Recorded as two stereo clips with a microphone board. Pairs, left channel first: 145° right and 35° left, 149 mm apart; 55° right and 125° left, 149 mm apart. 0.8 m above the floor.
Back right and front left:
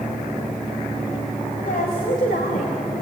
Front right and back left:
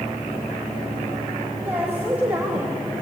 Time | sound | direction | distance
1.6 | a woman speaking | 155° right | 4 m